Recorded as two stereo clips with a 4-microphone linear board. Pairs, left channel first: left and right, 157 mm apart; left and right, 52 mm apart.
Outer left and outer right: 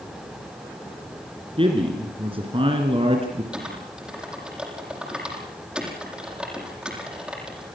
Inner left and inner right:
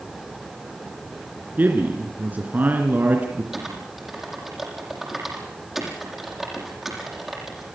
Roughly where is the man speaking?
Right.